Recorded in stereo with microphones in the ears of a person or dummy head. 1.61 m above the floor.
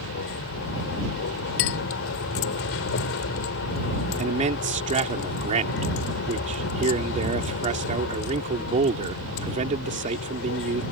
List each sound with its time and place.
0.0 s a vehicle: 70° left (ahead or behind)
1.6 s a clink: 75° left (ahead or behind)
4.2 s a man speaking: 35° right (ahead or behind)